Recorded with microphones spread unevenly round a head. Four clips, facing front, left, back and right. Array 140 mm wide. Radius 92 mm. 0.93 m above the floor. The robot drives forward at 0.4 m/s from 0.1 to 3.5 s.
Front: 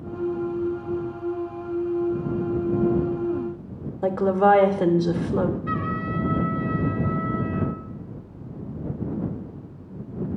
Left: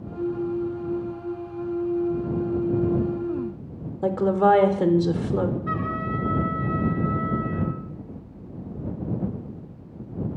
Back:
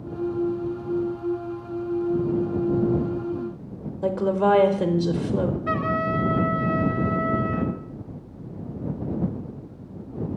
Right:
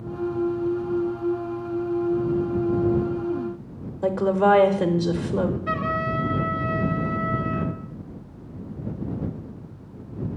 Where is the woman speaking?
20° right, 0.6 m.